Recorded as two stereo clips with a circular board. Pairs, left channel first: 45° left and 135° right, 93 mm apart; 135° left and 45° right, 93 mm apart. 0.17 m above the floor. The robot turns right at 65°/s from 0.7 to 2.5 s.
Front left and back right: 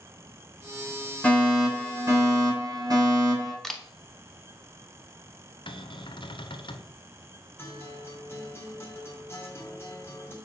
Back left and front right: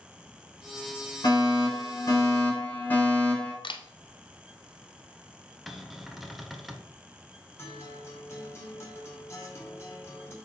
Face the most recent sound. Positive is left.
turn(degrees=95)